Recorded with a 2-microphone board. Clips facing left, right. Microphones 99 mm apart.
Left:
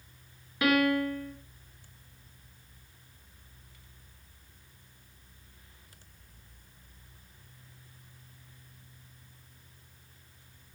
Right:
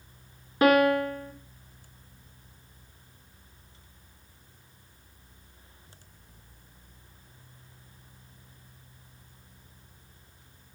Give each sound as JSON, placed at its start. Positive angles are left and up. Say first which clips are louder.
{"t": 0.6, "sound": "a piano", "louder": "right 5 dB", "side_deg": -35, "distance_m": 2.0}